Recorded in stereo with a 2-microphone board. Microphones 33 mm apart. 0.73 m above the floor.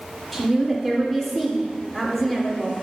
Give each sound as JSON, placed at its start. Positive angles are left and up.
{"t": 0.3, "sound": "a woman speaking", "side_deg": 5, "distance_m": 1.9}